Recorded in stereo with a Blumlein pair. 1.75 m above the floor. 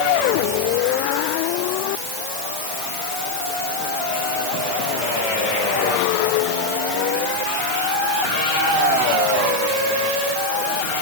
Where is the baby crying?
I don't hear a baby crying.